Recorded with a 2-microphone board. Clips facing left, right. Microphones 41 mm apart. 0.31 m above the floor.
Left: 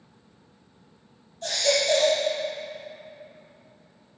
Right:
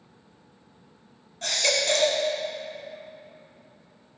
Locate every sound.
1.4 s a baby crying: 75° right (ahead or behind), 1.0 m